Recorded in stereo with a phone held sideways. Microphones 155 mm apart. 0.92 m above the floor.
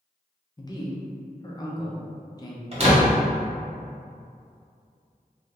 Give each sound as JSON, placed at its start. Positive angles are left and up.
{"t": 0.6, "sound": "a man speaking", "side_deg": 25, "distance_m": 0.7}
{"t": 2.7, "sound": "a door slam", "side_deg": -40, "distance_m": 1.1}